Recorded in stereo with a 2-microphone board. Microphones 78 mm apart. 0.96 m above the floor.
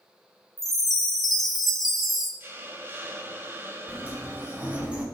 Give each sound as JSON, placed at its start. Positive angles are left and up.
{"t": 0.6, "sound": "a chime", "side_deg": 0, "distance_m": 1.9}
{"t": 2.4, "sound": "a hiss", "side_deg": -30, "distance_m": 1.1}
{"t": 3.9, "sound": "a sliding door", "side_deg": -20, "distance_m": 3.0}